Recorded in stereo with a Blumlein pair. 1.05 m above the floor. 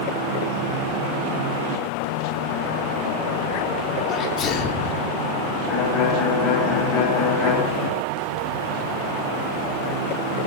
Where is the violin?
30° left, 4.5 m.